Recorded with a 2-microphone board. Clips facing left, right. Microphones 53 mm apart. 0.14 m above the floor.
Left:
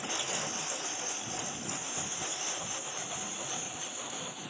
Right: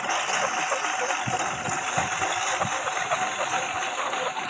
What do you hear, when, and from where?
0.0 s a lawn mower: 65° right (ahead or behind); by 4.5 s 75° right (ahead or behind)